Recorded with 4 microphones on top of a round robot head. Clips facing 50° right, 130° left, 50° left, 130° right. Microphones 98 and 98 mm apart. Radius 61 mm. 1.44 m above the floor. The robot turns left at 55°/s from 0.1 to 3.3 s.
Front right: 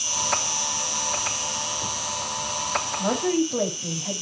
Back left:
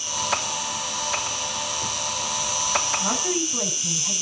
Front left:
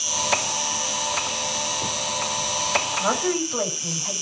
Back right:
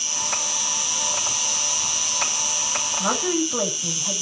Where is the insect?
20° right, 1.1 m; by 4.2 s 160° left, 1.1 m.